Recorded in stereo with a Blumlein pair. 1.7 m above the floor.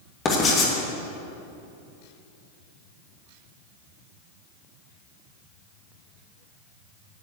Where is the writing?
25° left, 2.5 m.